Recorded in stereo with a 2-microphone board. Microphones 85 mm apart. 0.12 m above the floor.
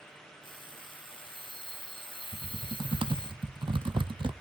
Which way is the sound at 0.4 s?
75° left (ahead or behind).